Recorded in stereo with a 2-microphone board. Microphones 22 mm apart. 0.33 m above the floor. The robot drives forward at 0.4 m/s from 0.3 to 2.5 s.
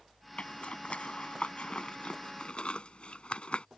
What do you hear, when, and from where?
0.4 s a zipper: 65° left (ahead or behind); by 3.6 s 50° left (ahead or behind)